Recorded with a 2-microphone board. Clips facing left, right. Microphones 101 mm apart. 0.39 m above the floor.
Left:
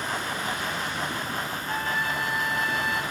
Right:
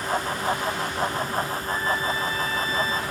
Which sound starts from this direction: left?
A trumpet, at 1.7 s.